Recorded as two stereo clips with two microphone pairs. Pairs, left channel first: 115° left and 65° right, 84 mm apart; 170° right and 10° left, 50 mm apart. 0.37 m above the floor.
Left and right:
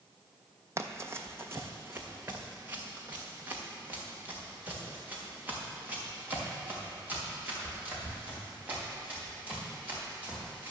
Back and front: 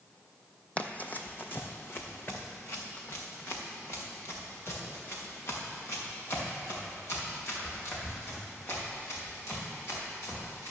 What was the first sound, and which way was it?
Running footsteps, 115° right.